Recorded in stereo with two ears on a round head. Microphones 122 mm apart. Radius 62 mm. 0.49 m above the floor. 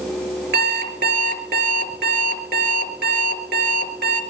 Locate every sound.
0.5 s an alarm clock: 85° right, 4 m